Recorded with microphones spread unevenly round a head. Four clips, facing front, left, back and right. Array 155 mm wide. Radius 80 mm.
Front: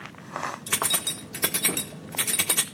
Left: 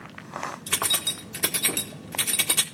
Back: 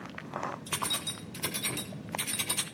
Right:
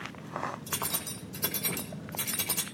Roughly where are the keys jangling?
Ahead left.